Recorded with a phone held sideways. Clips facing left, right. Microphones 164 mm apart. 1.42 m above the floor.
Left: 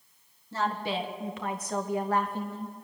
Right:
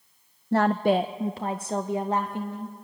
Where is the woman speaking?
65° right (ahead or behind), 0.6 m; by 2.8 s 15° right (ahead or behind), 1.7 m.